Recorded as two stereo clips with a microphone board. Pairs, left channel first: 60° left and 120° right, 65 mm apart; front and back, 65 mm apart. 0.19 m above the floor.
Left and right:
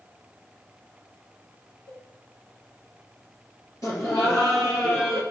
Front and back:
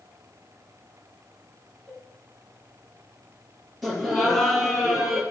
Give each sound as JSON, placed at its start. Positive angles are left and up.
{"t": 1.9, "sound": "a cowbell", "azimuth_deg": 75, "distance_m": 3.5}
{"t": 3.8, "sound": "laughter", "azimuth_deg": 90, "distance_m": 5.0}